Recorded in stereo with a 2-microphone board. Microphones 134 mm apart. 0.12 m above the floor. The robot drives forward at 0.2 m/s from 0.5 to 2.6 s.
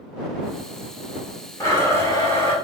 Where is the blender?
20° left (ahead or behind), 1.6 m.